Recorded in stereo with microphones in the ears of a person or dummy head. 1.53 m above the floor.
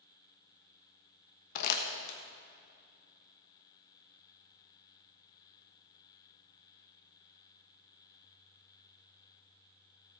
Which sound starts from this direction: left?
Crumpling, at 1.6 s.